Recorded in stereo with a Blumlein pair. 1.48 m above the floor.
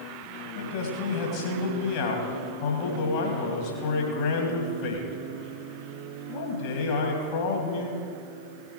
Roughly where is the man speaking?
Ahead left.